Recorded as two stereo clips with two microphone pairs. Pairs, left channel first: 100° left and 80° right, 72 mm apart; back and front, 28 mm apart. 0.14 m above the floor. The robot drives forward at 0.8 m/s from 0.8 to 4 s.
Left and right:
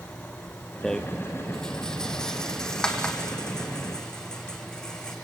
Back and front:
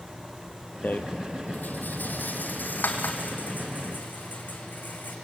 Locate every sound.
0.8 s a rattle: straight behind, 1.0 m